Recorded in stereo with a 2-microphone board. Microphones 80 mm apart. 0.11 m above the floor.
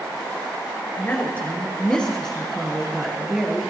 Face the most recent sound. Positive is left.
turn(degrees=-10)  # may be behind; listen again after turning